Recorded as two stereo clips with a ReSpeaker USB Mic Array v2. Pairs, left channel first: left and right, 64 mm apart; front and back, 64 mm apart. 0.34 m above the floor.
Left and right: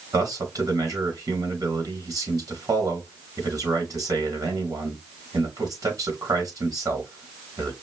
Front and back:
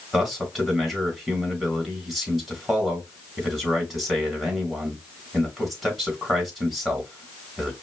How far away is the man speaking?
About 2.5 m.